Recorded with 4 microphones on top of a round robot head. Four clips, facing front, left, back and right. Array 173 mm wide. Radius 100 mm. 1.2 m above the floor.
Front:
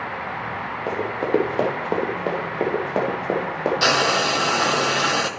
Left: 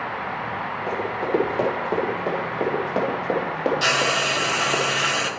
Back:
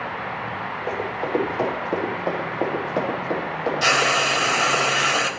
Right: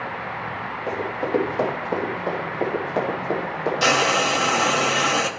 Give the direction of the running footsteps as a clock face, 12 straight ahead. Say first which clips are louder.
Even, front 3 dB; 12 o'clock.